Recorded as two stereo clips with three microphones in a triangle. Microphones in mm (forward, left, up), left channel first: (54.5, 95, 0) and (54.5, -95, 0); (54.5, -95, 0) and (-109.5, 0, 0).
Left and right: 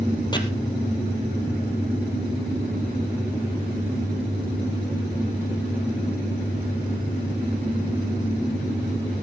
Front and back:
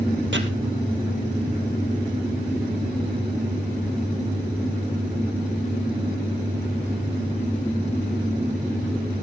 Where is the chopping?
155° left, 2 m.